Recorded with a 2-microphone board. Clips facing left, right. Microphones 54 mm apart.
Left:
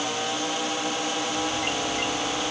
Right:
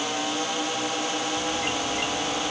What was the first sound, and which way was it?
Only background noise.